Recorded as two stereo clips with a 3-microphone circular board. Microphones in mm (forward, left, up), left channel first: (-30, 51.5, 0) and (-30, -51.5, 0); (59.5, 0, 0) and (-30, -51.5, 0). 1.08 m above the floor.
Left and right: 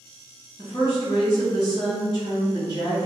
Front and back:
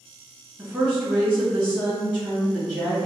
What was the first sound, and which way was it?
A woman speaking, 135° left.